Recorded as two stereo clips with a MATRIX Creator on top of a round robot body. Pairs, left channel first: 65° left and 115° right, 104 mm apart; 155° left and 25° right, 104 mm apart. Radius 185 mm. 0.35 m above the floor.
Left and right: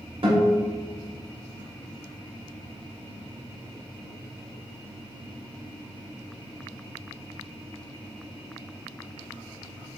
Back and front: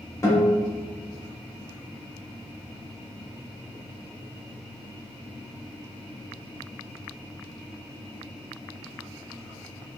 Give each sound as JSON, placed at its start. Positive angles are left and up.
{"t": 0.2, "sound": "a guitar", "azimuth_deg": -145, "distance_m": 1.4}